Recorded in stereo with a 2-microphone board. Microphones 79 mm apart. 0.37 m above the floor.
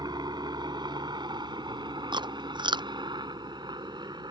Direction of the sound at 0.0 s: 65° right (ahead or behind).